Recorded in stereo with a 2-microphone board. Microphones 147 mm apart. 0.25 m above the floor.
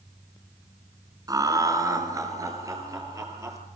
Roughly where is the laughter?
Right.